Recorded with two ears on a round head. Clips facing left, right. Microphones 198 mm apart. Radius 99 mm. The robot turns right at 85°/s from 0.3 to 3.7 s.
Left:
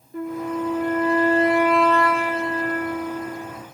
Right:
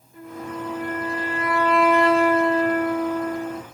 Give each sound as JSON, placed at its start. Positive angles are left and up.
{"t": 0.1, "sound": "a flute", "azimuth_deg": 55, "distance_m": 0.5}